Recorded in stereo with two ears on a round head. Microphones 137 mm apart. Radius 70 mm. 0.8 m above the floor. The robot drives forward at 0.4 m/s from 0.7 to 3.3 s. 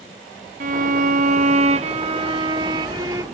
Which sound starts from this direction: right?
A violin, at 0.6 s.